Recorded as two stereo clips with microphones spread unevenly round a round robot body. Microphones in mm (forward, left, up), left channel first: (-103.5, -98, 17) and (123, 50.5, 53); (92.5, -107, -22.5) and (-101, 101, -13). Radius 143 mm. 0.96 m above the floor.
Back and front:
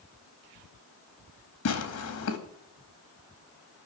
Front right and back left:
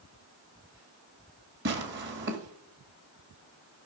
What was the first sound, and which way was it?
Tearing paper, 175° right.